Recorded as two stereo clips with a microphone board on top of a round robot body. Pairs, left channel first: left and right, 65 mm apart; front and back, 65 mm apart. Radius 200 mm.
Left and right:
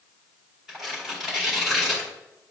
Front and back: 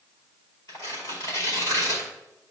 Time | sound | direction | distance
0.7 | tearing paper | 5° right | 3.5 m